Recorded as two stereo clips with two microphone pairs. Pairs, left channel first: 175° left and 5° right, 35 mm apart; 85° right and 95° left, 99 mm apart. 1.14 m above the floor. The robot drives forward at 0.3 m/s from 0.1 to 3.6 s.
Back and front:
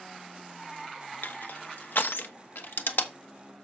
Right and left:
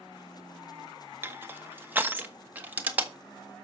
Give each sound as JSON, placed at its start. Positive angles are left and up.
{"t": 1.2, "sound": "crushing", "azimuth_deg": 160, "distance_m": 0.8}